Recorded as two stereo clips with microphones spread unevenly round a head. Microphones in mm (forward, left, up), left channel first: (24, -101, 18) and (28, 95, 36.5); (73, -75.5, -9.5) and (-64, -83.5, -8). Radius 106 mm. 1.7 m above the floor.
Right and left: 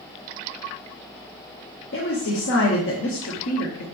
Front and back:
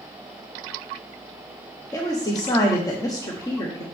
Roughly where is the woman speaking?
Ahead right.